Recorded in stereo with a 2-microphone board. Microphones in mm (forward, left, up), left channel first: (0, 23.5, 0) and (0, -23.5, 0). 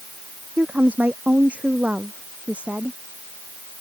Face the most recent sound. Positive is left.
turn(degrees=-25)  # may be behind; listen again after turning